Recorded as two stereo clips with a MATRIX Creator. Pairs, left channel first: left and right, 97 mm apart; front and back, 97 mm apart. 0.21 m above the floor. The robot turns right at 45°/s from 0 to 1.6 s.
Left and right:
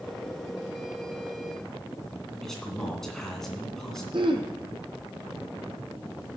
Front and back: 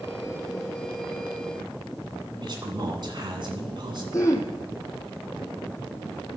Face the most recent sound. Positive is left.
turn(degrees=-55)